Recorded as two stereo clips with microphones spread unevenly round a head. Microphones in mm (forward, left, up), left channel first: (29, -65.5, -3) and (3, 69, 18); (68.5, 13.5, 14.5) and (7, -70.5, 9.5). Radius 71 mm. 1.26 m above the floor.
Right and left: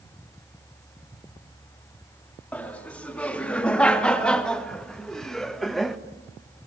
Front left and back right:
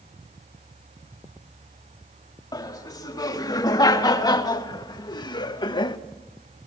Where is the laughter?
Straight ahead, 3.5 m; by 6.0 s 10° left, 1.6 m.